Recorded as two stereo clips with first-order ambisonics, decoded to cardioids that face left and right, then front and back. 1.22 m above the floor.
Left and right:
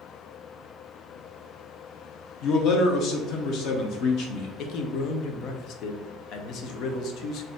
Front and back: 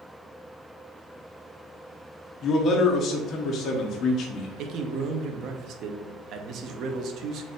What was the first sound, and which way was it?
A man speaking, 55° left.